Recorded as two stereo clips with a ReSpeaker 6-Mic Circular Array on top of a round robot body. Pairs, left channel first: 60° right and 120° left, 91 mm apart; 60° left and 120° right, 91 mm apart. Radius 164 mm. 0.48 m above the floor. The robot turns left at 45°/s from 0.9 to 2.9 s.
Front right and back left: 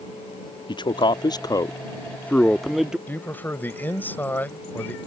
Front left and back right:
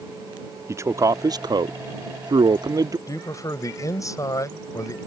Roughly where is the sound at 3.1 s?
Ahead.